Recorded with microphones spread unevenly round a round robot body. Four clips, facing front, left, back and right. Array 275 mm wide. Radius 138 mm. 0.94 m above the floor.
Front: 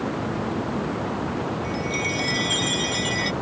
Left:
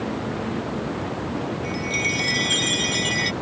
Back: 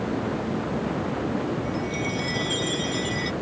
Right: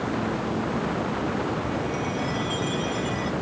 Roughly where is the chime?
Left.